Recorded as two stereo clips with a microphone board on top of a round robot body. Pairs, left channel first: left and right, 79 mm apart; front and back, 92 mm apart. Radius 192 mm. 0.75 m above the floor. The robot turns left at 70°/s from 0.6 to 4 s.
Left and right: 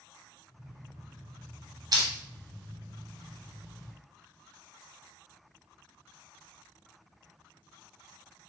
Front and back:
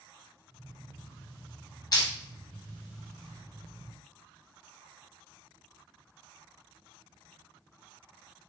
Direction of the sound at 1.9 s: 50° right.